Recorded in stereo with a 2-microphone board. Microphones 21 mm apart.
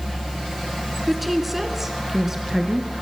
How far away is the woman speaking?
About 1.2 m.